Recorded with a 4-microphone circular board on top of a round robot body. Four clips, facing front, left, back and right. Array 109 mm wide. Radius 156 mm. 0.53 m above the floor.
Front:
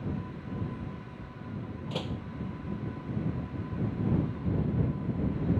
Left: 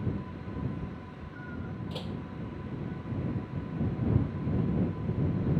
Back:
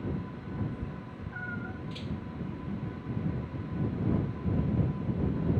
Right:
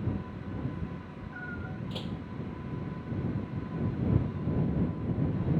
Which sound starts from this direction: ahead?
A door slam, at 1.9 s.